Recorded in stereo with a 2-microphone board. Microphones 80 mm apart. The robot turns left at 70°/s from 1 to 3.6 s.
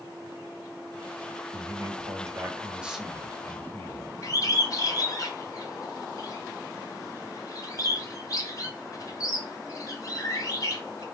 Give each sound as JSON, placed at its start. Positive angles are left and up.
{"t": 1.5, "sound": "a man speaking", "azimuth_deg": -75, "distance_m": 1.3}
{"t": 4.2, "sound": "a bird", "side_deg": 45, "distance_m": 1.5}